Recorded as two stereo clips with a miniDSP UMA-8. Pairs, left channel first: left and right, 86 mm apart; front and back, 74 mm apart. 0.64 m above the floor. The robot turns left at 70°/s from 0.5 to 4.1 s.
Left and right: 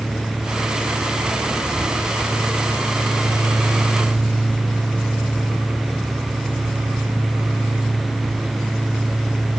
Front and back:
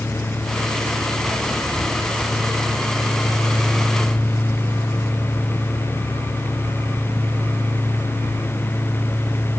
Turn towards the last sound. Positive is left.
No sound to turn to.